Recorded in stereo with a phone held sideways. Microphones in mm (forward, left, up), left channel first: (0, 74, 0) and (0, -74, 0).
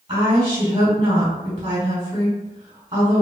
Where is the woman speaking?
50° right (ahead or behind), 1.6 m.